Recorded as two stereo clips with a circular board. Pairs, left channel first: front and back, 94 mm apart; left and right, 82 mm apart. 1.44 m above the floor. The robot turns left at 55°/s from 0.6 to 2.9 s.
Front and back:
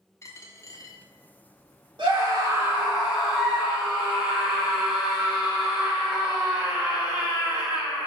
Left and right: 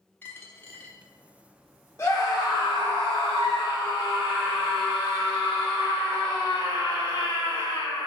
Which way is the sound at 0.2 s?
35° left.